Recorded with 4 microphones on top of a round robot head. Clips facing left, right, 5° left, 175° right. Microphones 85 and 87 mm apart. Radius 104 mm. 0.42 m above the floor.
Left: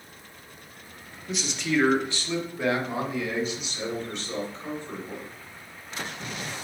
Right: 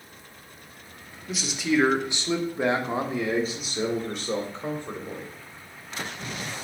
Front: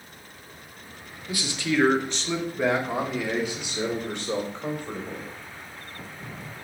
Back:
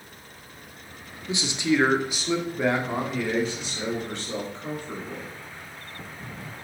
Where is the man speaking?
Straight behind, 1.3 m; by 5.3 s 55° right, 2.5 m.